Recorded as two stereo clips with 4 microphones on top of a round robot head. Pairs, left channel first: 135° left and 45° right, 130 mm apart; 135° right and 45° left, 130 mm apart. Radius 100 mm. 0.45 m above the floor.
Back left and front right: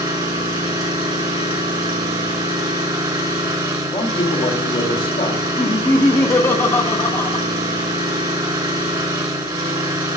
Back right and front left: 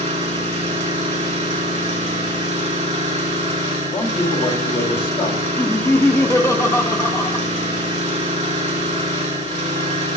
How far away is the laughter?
About 1.3 m.